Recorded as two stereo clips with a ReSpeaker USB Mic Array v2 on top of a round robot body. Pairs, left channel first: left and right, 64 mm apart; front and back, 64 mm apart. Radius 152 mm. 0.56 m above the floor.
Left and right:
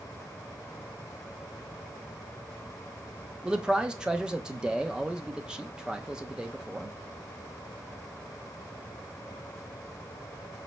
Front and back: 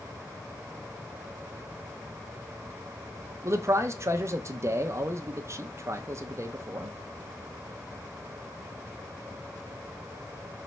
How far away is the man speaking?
About 0.8 m.